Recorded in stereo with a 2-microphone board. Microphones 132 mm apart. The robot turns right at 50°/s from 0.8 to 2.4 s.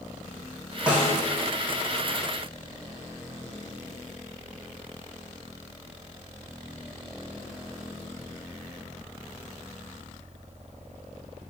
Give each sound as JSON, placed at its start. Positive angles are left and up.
{"t": 0.9, "sound": "a snare drum", "side_deg": -10, "distance_m": 2.0}